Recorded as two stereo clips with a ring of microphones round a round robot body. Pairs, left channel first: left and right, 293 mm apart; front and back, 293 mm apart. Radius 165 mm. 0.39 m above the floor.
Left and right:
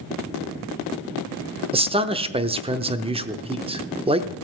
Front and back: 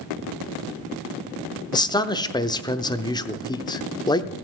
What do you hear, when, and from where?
1.7 s a man speaking: 55° right, 0.8 m